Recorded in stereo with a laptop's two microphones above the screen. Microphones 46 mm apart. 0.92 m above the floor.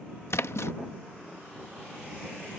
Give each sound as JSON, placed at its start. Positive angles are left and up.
{"t": 0.3, "sound": "a splash", "side_deg": 70}